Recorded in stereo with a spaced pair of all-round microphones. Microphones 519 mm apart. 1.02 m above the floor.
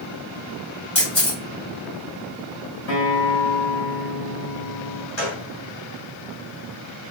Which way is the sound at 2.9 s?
40° left (ahead or behind).